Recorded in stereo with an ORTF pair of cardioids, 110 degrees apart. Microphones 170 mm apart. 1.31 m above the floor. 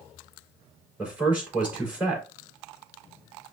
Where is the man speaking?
10° right, 4 m.